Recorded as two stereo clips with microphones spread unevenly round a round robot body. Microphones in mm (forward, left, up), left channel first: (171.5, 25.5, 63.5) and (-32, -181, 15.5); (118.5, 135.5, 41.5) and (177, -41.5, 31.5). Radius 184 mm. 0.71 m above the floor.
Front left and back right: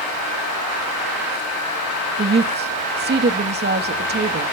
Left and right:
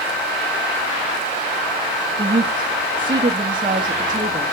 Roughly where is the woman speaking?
Behind right.